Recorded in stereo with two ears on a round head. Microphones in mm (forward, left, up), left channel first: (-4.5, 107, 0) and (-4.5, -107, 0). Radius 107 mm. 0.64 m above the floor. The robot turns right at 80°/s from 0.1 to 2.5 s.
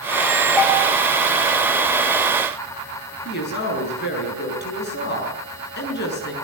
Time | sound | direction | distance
0.6 | a bell | 5° left (ahead or behind) | 3.5 m
3.2 | a woman speaking | 45° left (ahead or behind) | 7.5 m